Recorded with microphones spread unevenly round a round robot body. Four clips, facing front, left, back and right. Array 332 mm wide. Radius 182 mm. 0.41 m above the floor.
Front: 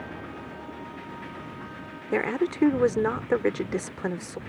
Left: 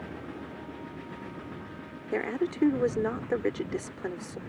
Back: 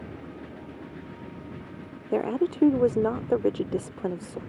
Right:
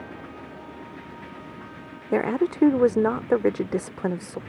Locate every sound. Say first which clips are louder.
2.1 s a woman speaking: right 7 dB, back 1 dB; 70° right